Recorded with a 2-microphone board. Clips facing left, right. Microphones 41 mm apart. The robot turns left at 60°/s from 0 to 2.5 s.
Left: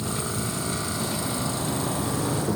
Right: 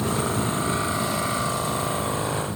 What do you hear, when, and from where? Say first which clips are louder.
0.0 s an insect: right 5 dB; 110° right; by 2.6 s 100° left